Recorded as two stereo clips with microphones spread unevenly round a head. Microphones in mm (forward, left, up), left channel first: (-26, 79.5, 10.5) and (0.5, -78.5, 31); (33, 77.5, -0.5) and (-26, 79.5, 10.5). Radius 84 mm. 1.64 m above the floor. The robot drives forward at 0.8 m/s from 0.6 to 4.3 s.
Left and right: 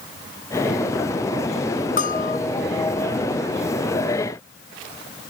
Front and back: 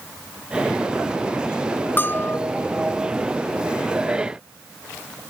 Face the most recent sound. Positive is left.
turn(degrees=60)